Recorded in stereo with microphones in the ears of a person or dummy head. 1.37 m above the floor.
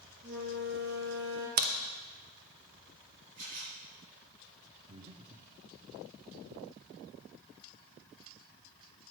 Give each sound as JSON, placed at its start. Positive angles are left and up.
{"t": 0.2, "sound": "a flute", "side_deg": -60, "distance_m": 5.0}
{"t": 1.6, "sound": "a crack", "side_deg": -50, "distance_m": 0.8}
{"t": 3.4, "sound": "a camera shutter", "side_deg": -40, "distance_m": 4.5}
{"t": 4.9, "sound": "breathing", "side_deg": -20, "distance_m": 0.9}